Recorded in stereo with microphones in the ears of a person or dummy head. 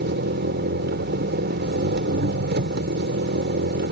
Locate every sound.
0.0 s an engine running: 50° right (ahead or behind)